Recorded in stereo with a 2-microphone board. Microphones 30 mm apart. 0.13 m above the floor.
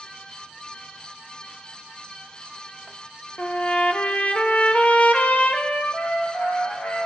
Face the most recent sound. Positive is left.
turn(degrees=55)  # may be behind; listen again after turning